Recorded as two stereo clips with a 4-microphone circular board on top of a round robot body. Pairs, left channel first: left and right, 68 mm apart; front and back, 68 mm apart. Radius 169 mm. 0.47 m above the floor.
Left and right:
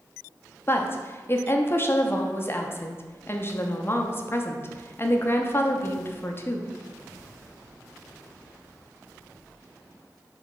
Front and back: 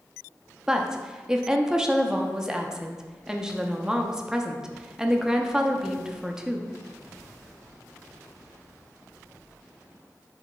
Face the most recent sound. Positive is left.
turn(degrees=105)